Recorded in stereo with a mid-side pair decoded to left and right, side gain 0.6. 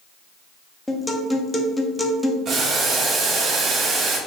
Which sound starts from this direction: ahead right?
Boiling, at 2.5 s.